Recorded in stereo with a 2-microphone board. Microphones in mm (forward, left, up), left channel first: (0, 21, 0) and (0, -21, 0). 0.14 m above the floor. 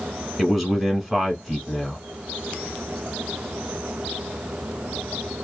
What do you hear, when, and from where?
0.4 s a man speaking: centre (ahead or behind), 1.2 m